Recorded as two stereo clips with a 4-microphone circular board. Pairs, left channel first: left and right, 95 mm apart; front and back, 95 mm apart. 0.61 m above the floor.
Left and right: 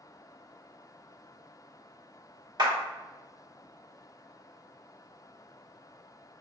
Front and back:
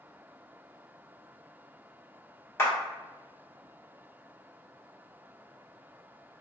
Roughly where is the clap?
Ahead right.